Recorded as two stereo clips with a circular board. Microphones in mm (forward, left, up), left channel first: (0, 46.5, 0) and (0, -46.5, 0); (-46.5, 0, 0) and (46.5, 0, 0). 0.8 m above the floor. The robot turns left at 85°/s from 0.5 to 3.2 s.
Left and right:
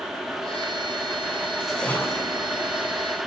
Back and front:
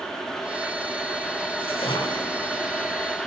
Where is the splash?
170° right, 8 m; by 2.5 s 115° left, 8 m.